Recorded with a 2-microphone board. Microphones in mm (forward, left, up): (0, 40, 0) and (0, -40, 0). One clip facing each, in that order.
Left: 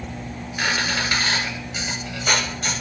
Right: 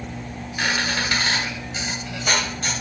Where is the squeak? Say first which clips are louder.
Even; 5° left (ahead or behind), 1.9 m.